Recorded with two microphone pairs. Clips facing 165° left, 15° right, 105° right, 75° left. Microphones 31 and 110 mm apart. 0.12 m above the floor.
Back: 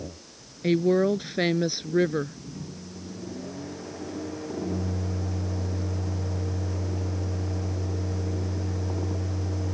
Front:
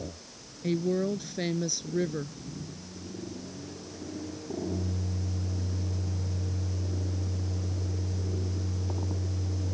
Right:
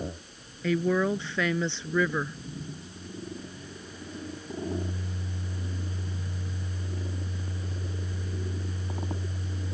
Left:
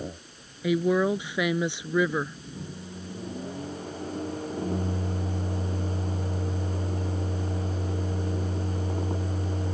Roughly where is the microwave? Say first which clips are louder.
Back 3 dB, left 2 dB; behind left.